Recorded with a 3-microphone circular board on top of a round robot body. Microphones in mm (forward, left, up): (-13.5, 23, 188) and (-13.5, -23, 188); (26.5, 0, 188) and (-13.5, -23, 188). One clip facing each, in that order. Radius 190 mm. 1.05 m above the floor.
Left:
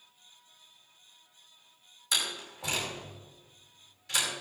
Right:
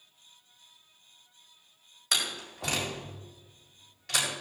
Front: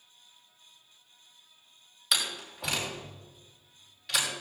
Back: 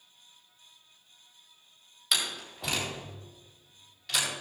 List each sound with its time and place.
2.1 s a door slam: 60° right, 5.5 m